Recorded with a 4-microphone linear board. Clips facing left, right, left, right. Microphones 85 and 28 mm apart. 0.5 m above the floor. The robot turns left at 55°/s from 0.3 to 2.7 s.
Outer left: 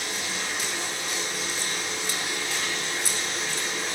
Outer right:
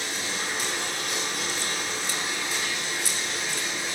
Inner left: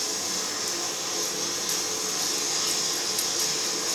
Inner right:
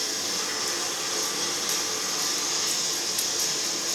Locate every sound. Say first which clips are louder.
0.0 s running water: even, inner right 1 dB; 45° right, 1.3 m; by 4.0 s 175° right, 1.3 m